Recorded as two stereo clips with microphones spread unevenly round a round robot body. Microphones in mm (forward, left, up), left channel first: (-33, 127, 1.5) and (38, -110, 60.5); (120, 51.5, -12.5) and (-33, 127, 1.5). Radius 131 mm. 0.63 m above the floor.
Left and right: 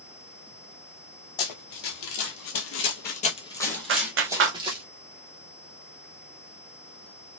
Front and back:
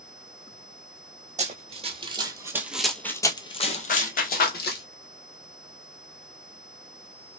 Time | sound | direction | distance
1.4 | running footsteps | 115° left | 1.1 m
3.9 | a clap | 30° right | 0.6 m